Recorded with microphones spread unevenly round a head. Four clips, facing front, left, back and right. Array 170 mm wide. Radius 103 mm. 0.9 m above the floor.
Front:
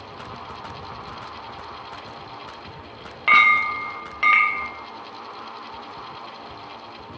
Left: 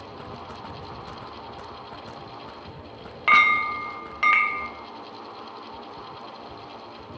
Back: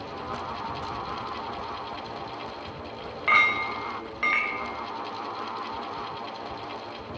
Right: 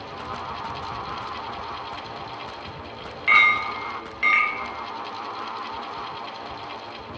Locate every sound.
3.3 s a clink: 60° left, 0.6 m